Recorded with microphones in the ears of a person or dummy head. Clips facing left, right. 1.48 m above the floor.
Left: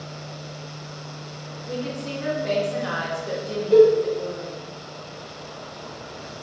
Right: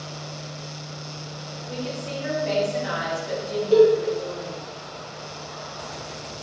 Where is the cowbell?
20° right (ahead or behind), 1.8 m.